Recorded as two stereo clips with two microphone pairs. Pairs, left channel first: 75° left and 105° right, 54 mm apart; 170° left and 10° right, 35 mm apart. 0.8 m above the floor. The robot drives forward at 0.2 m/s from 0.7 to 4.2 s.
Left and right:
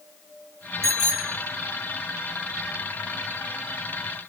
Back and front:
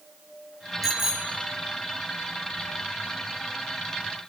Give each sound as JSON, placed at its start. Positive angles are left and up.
{"t": 0.8, "sound": "a bicycle bell", "azimuth_deg": -90, "distance_m": 2.0}